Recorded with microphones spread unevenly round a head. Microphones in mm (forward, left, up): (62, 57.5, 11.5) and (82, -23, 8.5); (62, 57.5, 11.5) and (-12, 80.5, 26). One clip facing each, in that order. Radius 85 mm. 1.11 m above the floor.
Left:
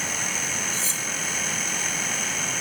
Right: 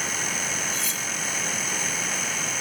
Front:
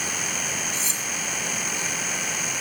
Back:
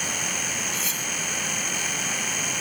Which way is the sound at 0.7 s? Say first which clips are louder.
Even, even; 45° left.